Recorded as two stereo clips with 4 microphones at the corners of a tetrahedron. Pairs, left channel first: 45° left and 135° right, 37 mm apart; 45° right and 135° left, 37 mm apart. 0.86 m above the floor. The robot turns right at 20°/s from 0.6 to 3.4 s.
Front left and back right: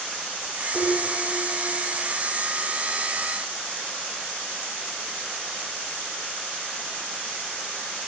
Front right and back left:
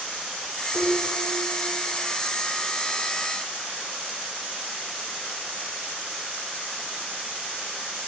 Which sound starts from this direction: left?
Dishes clattering, at 0.7 s.